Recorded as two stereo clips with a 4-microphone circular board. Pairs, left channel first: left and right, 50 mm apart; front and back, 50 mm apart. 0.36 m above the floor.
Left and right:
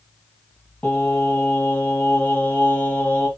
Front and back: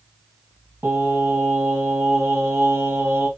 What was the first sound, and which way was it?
Singing, 150° left.